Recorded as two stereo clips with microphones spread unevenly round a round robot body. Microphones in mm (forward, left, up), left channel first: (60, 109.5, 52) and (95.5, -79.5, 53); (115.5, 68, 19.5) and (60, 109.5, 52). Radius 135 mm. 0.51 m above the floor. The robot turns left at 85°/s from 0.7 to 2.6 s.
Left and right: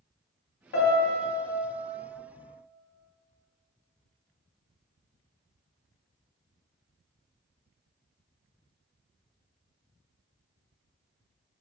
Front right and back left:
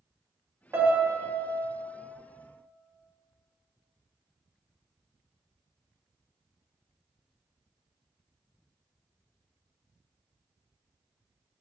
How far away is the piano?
About 0.6 m.